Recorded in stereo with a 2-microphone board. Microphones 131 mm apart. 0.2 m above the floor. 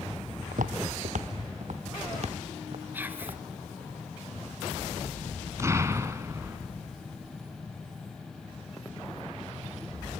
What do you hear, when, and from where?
0.5 s footsteps: 85° right, 1.4 m; by 3.9 s 45° right (ahead or behind), 5 m
2.9 s whispering: 15° right (ahead or behind), 2.5 m
5.6 s an explosion: 20° right (ahead or behind), 1.4 m